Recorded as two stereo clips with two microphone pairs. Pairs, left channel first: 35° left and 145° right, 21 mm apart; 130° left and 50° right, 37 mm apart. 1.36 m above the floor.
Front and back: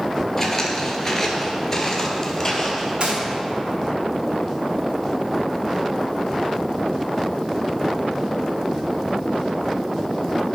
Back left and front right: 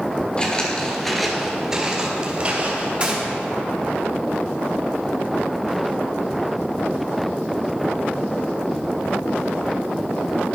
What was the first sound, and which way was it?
Footsteps, 105° left.